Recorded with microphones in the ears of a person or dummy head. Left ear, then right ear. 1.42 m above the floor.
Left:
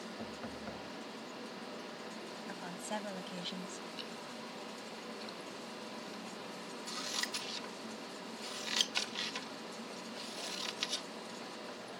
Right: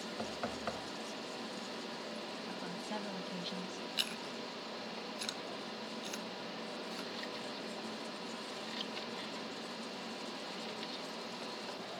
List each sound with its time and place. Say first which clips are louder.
0.2 s knocking: right 8 dB; 40° right (ahead or behind)
2.5 s a woman speaking: left 3 dB; 20° left (ahead or behind)
4.0 s chewing: right 6 dB; 45° right (ahead or behind)
6.9 s scissors: left 4 dB; 60° left (ahead or behind)